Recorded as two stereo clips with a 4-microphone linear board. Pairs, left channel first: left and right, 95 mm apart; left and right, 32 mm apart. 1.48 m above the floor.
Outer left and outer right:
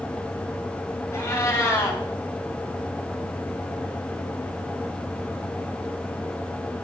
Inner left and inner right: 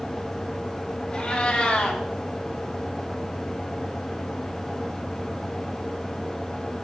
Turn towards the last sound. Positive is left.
turn(degrees=30)  # may be behind; listen again after turning